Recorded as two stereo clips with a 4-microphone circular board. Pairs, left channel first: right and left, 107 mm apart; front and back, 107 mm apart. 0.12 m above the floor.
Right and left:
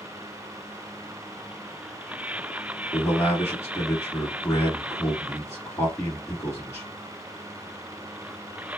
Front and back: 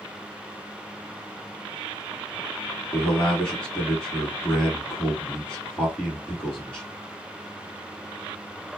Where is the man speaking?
70° right, 1.4 m.